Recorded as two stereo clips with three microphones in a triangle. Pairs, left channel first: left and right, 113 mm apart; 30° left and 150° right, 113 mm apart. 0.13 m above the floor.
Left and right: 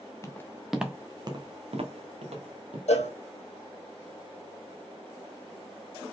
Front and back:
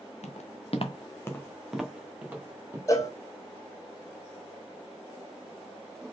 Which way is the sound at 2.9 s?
90° left.